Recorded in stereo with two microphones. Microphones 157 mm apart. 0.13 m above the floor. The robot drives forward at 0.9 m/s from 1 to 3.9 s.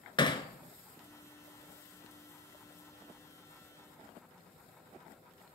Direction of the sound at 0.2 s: 30° left (ahead or behind).